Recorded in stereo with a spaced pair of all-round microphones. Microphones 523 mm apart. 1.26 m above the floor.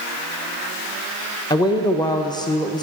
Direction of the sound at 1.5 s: 10° left (ahead or behind).